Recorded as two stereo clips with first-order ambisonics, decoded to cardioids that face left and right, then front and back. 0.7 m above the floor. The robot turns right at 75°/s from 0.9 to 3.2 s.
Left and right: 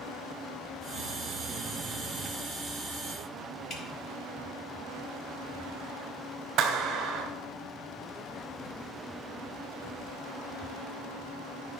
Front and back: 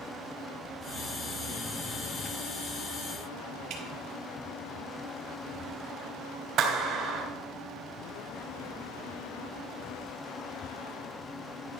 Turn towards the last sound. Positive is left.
turn(degrees=-135)